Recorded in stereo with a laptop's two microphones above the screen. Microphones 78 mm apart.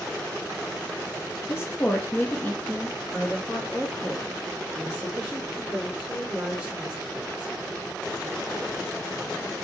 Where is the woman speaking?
35° left (ahead or behind), 1.5 m; by 7.5 s 10° right (ahead or behind), 5 m.